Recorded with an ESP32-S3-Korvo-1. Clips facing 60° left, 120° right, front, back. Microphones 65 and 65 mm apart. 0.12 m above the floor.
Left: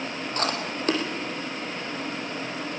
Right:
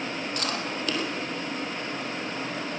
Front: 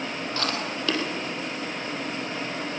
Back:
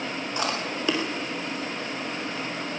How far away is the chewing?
About 3 m.